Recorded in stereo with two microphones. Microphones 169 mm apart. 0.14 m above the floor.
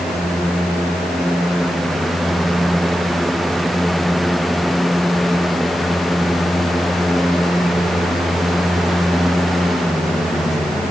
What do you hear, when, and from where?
Only background noise.